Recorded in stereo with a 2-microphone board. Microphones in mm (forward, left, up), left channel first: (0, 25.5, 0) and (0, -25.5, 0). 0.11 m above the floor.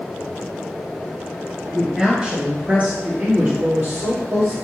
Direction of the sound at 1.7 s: 15° right (ahead or behind).